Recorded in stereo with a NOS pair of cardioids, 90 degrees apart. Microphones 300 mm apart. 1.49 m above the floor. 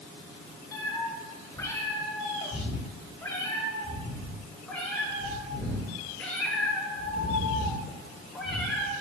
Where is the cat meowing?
10° left, 9 m; by 8.9 s straight ahead, 13.5 m.